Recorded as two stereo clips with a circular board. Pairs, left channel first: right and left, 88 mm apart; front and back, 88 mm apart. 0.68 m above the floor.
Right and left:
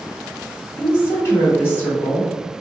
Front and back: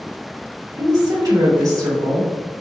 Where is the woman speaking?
145° right, 1.6 m.